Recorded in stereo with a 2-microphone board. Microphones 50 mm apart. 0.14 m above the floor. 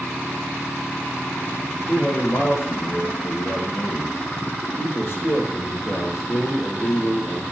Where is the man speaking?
65° left (ahead or behind), 4.5 m.